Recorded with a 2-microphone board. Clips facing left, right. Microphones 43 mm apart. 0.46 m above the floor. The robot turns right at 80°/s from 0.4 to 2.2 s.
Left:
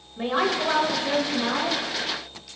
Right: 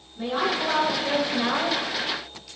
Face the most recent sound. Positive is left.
turn(degrees=-85)